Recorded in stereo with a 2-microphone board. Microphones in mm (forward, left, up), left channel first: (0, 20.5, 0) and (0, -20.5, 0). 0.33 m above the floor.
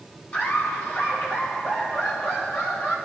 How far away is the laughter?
About 3 m.